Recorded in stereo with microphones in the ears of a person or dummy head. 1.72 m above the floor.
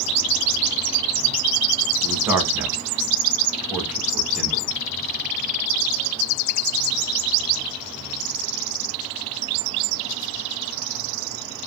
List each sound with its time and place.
2.0 s a man speaking: 15° right (ahead or behind), 1.0 m